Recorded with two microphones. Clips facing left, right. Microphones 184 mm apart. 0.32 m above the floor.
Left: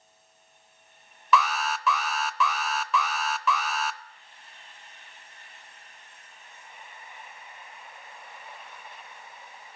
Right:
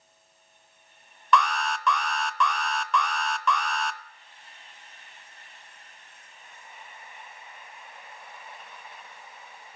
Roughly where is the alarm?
Centre.